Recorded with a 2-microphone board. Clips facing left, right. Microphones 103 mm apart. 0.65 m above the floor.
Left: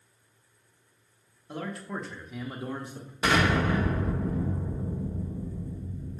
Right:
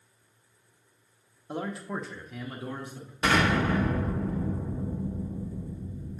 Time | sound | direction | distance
1.5 | a man speaking | 25° right (ahead or behind) | 0.8 m
3.2 | an explosion | 5° left (ahead or behind) | 1.3 m